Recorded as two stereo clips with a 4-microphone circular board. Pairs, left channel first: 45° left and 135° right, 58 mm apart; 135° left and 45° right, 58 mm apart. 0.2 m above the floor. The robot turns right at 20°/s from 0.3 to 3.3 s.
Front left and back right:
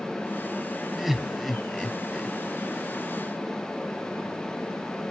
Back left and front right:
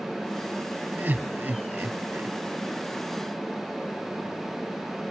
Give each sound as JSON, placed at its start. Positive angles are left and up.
{"t": 1.0, "sound": "laughter", "azimuth_deg": -55, "distance_m": 1.2}